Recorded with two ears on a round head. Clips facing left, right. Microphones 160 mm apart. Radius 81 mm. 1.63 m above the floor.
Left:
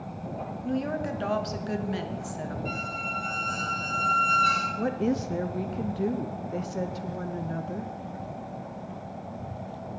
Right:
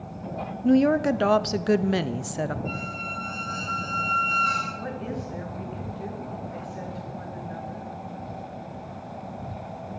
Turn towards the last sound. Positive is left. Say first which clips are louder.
# left 10 dB
turn(degrees=50)  # may be behind; listen again after turning